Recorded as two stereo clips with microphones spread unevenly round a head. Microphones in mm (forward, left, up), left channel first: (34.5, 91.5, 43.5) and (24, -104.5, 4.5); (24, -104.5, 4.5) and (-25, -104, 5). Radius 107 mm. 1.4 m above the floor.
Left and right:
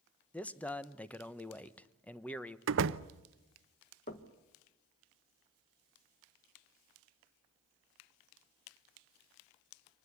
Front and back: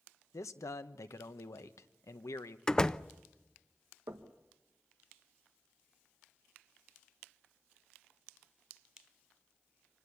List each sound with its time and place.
0.3 s a man speaking: 5° left, 0.9 m
2.7 s a door slam: 75° right, 0.7 m
4.1 s knocking: 140° left, 1.2 m